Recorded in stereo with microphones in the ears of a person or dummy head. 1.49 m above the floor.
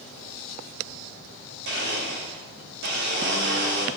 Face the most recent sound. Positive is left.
turn(degrees=-60)  # may be behind; listen again after turning